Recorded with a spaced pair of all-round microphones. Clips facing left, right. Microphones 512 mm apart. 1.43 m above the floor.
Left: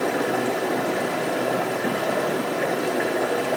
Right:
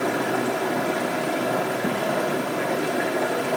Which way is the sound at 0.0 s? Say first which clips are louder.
Left 1 dB; 25° right (ahead or behind).